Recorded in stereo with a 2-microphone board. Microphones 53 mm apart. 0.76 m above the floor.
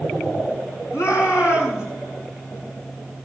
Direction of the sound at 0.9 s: 80° left.